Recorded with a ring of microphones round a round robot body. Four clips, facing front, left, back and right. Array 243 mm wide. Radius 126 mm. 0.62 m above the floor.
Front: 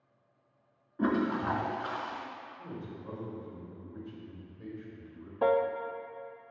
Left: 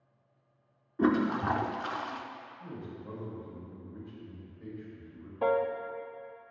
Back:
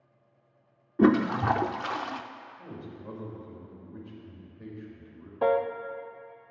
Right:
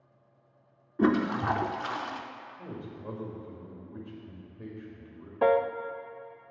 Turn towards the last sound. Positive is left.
turn(degrees=-100)